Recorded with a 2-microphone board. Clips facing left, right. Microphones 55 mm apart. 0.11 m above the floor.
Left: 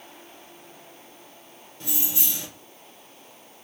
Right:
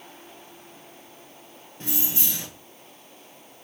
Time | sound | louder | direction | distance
1.8 | keys jangling | right 1 dB | 35° right (ahead or behind) | 1.3 m